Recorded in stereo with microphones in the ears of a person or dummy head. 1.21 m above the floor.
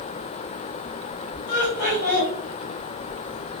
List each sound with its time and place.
1.5 s laughter: 65° left (ahead or behind), 1.9 m